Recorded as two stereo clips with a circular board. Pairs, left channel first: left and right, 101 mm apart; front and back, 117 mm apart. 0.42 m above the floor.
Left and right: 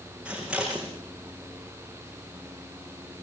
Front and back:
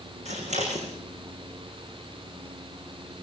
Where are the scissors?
170° right, 6 m.